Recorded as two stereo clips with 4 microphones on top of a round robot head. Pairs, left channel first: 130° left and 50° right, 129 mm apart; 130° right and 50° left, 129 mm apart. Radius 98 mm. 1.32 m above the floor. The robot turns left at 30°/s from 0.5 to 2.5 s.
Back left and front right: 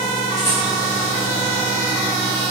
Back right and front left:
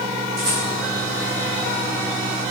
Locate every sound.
0.4 s a rattle: 90° left, 4 m; by 0.7 s 85° left, 4 m